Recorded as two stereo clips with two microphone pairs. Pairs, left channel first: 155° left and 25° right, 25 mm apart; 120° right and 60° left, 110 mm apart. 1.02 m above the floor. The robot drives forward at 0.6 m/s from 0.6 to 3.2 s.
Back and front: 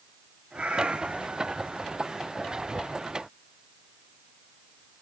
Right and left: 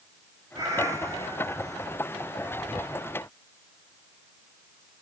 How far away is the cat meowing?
About 3.5 m.